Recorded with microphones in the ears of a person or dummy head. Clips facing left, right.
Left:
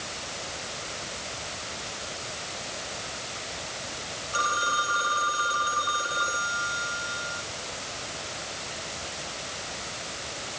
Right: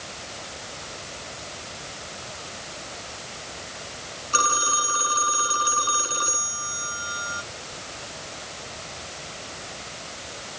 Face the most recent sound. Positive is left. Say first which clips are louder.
# right 3 dB
turn(degrees=-65)  # may be behind; listen again after turning